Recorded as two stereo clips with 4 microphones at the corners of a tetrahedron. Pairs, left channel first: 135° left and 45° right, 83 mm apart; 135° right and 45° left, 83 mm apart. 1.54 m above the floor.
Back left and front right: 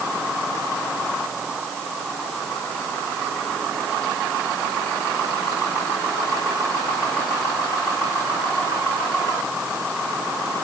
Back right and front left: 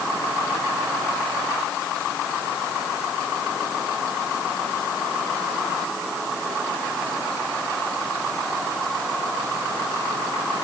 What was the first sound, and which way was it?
Only background noise.